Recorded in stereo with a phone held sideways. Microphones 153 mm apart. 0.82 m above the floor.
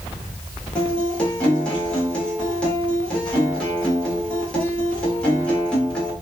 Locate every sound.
0.8 s a guitar: 5° left (ahead or behind), 1.1 m